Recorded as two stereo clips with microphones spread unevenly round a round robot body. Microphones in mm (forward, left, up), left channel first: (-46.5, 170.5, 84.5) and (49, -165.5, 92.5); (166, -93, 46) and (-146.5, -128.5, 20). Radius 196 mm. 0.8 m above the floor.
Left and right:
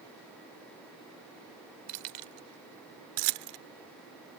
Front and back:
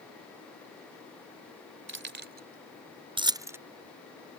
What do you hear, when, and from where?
1.9 s keys jangling: 115° right; by 3.6 s 90° right